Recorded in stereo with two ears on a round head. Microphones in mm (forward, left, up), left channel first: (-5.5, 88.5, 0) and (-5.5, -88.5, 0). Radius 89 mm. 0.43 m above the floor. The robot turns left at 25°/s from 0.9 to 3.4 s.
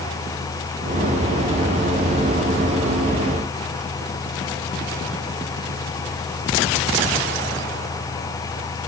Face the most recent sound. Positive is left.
No sound to turn to.